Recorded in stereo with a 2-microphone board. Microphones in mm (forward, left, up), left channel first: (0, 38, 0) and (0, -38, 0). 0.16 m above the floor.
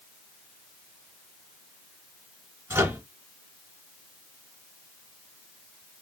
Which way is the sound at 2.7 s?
35° right (ahead or behind).